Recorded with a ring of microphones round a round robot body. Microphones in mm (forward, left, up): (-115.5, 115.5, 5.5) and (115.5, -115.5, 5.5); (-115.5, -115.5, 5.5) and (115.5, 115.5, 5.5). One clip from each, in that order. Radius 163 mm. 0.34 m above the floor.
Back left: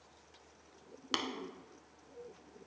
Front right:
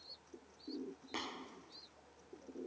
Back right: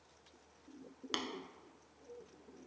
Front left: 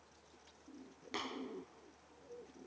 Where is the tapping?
170° left, 0.7 m.